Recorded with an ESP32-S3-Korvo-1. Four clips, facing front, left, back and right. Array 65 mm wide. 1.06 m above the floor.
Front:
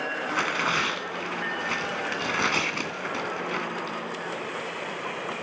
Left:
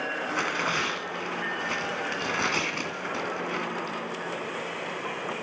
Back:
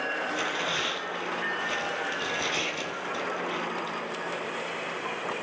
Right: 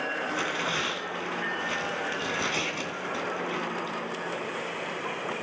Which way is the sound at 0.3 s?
25° left.